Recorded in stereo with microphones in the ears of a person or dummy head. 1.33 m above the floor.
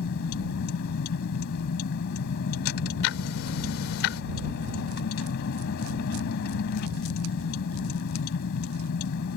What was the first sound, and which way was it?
A vehicle, 65° left (ahead or behind).